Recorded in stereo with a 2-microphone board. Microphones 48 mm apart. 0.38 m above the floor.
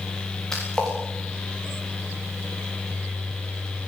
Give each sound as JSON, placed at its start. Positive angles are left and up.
{"t": 0.5, "sound": "a splash", "side_deg": 10, "distance_m": 10.0}